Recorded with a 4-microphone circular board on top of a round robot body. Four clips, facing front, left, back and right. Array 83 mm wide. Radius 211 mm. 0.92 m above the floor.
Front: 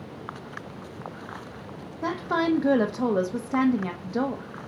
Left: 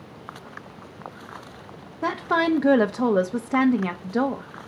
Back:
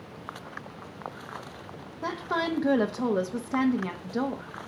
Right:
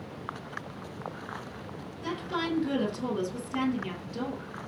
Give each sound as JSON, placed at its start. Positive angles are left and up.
{"t": 2.0, "sound": "a woman speaking", "azimuth_deg": 80, "distance_m": 1.5}